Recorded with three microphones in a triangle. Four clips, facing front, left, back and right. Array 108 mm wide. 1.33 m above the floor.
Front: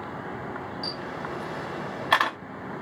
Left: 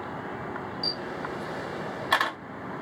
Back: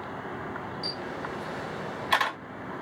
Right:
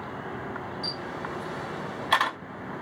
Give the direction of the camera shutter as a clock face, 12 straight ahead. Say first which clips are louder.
Left 1 dB, front 1 dB; 12 o'clock.